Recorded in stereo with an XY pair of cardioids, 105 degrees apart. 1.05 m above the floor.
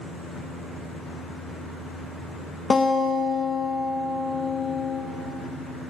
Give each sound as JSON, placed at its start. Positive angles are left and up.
{"t": 2.7, "sound": "a guitar", "azimuth_deg": 40, "distance_m": 0.5}